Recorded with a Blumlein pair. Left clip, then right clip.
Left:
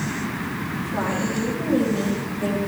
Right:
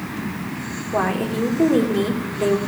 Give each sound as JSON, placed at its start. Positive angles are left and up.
{"t": 0.9, "sound": "a woman speaking", "azimuth_deg": -30, "distance_m": 3.0}